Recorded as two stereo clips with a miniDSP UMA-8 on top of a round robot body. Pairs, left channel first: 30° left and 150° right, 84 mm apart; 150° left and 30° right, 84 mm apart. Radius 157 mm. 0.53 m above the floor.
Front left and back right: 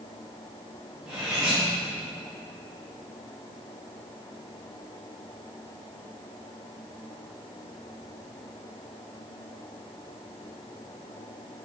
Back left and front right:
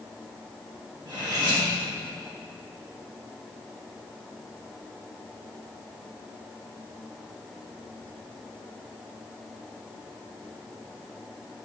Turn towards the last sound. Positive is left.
turn(degrees=-65)